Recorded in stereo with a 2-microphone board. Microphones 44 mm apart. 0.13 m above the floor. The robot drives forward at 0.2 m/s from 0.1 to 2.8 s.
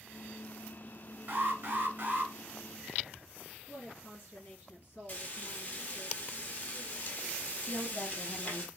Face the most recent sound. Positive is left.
turn(degrees=35)  # may be behind; listen again after turning